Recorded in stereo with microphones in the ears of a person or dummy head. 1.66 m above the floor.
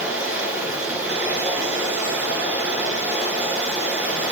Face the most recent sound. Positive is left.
turn(degrees=-10)  # may be behind; listen again after turning